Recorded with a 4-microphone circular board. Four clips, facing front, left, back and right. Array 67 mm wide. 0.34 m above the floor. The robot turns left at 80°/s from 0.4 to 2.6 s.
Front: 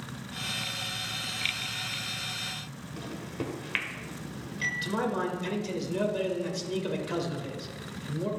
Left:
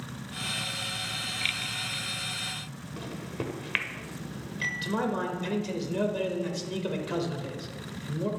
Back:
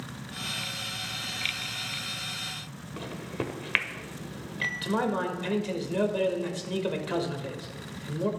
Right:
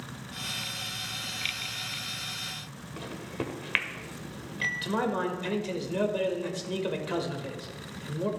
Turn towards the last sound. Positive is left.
turn(degrees=-150)